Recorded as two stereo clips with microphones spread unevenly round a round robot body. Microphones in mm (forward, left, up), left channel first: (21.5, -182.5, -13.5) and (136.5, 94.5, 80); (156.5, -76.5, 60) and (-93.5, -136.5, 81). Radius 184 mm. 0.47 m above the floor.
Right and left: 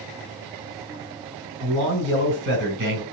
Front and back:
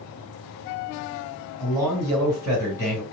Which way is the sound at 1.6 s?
115° left.